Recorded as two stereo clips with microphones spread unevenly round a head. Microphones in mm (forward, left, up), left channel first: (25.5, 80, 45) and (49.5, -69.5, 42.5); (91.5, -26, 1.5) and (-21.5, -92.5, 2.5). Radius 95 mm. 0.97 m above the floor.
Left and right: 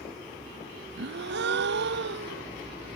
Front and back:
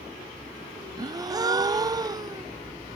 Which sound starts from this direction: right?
A gasp, at 1.0 s.